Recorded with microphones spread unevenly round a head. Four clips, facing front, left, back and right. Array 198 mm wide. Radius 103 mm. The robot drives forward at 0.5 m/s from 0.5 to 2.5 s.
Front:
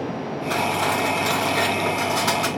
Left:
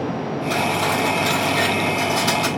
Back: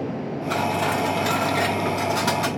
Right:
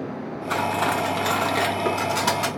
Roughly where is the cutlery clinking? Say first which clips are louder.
Left 1 dB, even; ahead right.